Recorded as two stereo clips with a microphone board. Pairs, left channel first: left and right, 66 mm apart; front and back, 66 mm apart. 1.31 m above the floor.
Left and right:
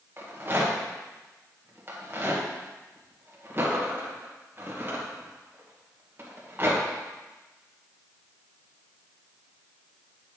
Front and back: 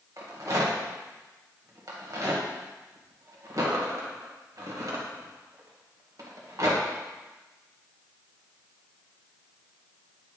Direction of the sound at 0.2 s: 145° right.